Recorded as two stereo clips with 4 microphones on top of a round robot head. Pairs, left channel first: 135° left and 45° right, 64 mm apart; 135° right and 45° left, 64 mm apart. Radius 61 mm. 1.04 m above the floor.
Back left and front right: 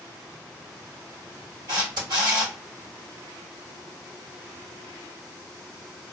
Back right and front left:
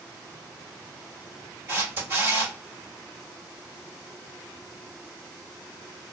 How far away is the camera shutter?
About 1.7 m.